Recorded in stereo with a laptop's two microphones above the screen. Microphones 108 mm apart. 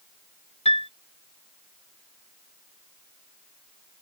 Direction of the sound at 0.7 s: 80° left.